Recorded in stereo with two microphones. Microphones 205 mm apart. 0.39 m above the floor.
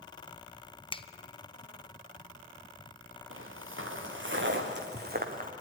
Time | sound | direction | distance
0.9 | a finger snap | 25° left (ahead or behind) | 0.6 m
3.3 | footsteps | 80° right | 3 m